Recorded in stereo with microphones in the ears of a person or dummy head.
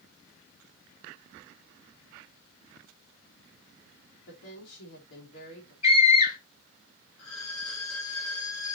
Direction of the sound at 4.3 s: 75° left (ahead or behind).